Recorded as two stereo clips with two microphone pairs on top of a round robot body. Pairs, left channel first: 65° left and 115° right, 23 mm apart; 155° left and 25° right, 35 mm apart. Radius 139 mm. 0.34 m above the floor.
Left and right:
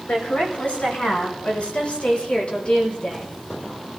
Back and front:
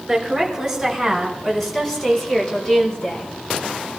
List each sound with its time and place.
0.1 s a woman speaking: 70° left, 6.5 m; by 3.4 s 115° left, 4.5 m